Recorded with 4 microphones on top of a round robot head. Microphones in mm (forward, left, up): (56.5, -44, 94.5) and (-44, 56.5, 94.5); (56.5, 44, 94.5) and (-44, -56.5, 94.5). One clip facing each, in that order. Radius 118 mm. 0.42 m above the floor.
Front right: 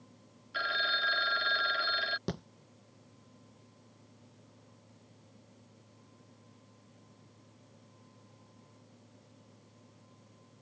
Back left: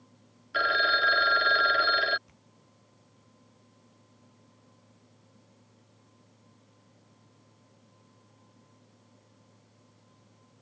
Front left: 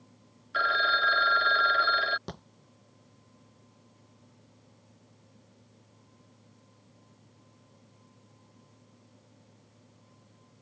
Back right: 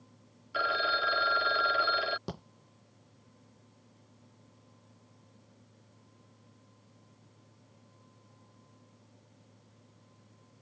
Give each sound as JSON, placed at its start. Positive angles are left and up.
{"t": 0.5, "sound": "a phone ringing", "azimuth_deg": 150}
{"t": 2.3, "sound": "a thud", "azimuth_deg": -55}